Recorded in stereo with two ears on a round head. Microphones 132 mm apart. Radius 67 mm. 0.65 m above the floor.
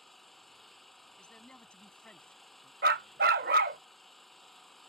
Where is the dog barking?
65° right (ahead or behind).